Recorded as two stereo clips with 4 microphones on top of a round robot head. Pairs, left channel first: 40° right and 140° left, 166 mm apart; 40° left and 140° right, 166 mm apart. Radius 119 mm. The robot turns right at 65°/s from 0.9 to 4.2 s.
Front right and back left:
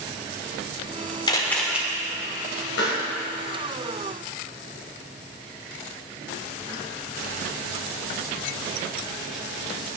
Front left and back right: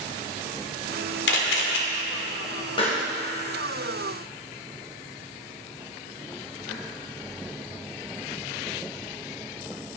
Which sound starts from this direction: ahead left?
A camera shutter, at 1.3 s.